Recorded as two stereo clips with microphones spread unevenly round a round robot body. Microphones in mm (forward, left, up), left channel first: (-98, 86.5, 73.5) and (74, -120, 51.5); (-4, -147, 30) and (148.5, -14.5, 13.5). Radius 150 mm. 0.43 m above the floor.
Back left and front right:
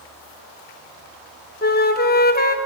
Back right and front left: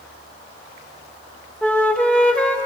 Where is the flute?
130° left, 1.2 m.